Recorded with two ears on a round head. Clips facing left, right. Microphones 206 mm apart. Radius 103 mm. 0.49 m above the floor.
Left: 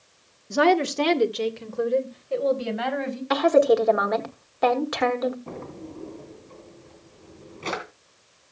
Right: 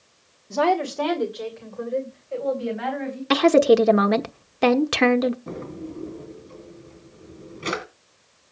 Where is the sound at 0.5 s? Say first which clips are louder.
Left 2 dB; 15° left (ahead or behind), 1.3 m; by 3.2 s 60° left (ahead or behind), 4 m.